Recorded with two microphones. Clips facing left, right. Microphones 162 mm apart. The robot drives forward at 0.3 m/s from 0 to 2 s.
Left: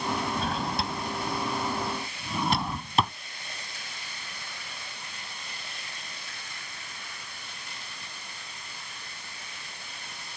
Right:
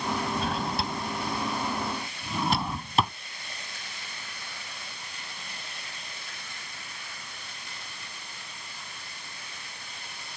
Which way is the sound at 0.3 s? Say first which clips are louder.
Even; centre (ahead or behind).